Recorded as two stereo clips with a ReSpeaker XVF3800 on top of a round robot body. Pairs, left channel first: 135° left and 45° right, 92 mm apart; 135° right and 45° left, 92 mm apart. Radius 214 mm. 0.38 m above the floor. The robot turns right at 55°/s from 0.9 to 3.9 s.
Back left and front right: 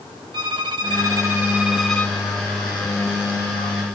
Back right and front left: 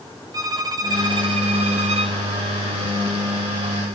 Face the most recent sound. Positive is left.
turn(degrees=160)